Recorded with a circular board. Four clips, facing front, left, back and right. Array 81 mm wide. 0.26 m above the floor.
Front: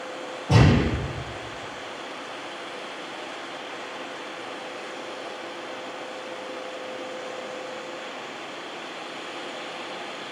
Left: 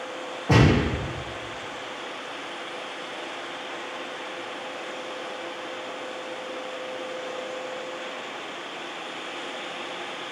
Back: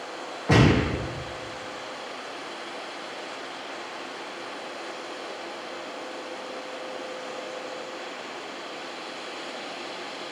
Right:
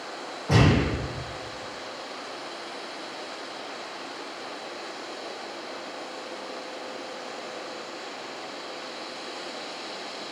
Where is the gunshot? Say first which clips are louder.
Left 2 dB, even; 170° left, 4.5 m.